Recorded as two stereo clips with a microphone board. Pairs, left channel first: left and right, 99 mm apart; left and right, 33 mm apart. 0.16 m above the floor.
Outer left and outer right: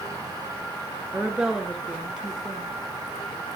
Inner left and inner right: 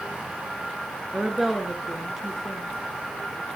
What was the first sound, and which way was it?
A woman speaking, 10° right (ahead or behind).